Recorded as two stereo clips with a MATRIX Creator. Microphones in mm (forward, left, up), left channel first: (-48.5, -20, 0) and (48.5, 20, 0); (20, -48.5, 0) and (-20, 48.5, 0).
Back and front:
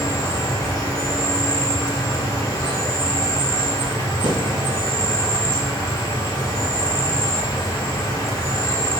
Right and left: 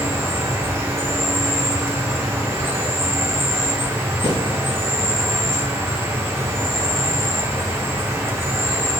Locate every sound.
0.0 s an insect: 165° left, 1.0 m
4.2 s a snare drum: 45° right, 1.9 m